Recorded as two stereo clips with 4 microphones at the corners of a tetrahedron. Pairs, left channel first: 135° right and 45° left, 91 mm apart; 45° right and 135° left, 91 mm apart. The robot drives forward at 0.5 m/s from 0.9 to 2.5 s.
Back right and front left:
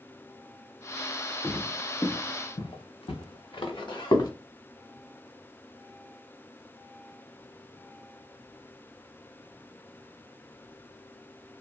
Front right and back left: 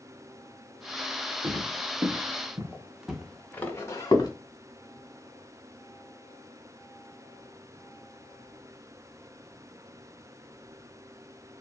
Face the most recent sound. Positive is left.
turn(degrees=-95)